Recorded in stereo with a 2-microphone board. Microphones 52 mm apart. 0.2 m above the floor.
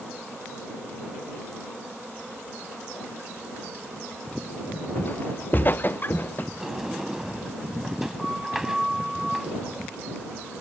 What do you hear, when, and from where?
5.0 s footsteps: 35° left (ahead or behind); by 6.5 s 40° left (ahead or behind)
6.6 s a sliding door: 5° right (ahead or behind)